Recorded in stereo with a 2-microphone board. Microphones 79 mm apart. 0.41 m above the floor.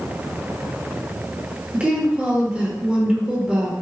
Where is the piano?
I don't hear a piano.